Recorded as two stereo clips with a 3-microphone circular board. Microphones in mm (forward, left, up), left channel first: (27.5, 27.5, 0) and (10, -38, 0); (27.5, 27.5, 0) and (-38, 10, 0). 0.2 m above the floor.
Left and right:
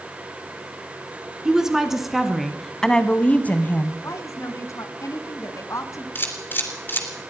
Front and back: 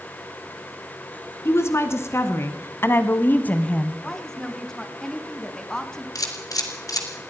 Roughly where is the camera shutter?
Ahead.